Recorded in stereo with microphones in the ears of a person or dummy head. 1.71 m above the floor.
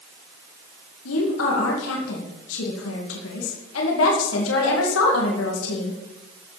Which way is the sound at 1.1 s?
75° left (ahead or behind).